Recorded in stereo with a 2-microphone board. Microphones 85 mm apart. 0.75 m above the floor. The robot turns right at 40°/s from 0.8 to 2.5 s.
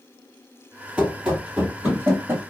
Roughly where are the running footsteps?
Centre.